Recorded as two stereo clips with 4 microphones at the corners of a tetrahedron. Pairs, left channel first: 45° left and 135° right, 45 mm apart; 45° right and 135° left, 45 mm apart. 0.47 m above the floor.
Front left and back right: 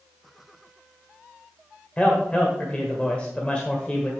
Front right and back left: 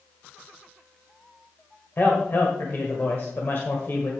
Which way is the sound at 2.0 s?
20° right.